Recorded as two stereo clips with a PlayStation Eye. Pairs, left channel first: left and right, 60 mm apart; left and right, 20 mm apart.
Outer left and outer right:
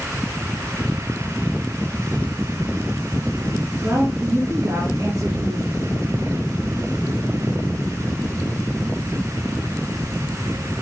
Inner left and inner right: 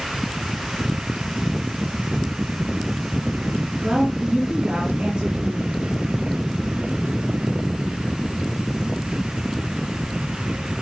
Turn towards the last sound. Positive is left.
turn(degrees=-65)  # may be behind; listen again after turning